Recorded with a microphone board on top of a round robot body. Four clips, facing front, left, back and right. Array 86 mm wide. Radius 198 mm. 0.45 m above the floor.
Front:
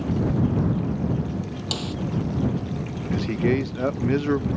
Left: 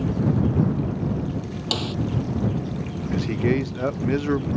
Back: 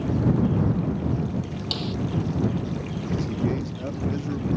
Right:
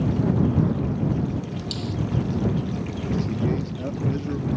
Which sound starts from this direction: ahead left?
A man speaking, at 3.1 s.